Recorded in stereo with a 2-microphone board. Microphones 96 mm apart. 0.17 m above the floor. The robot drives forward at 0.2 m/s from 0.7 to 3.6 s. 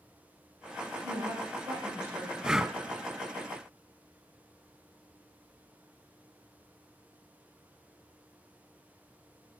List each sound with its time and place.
1.0 s a woman speaking: 50° right (ahead or behind), 9.5 m
2.4 s breathing: 10° right (ahead or behind), 0.5 m